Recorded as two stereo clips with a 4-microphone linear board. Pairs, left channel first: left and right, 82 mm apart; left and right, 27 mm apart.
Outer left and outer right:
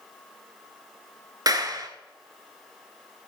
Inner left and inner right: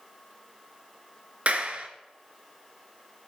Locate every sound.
1.5 s a clap: 50° right (ahead or behind), 1.5 m